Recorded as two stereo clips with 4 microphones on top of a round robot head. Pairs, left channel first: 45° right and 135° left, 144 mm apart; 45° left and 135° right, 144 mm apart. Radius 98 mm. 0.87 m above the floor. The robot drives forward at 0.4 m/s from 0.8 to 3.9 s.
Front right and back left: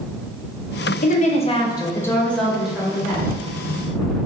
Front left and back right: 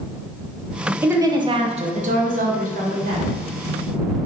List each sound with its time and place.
1.0 s a woman speaking: 65° right, 0.6 m; by 3.3 s 150° right, 0.9 m